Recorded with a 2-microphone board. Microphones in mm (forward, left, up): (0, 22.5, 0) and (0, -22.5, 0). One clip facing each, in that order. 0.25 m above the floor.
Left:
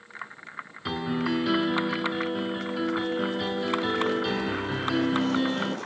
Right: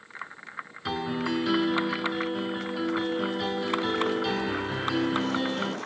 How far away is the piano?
About 0.8 m.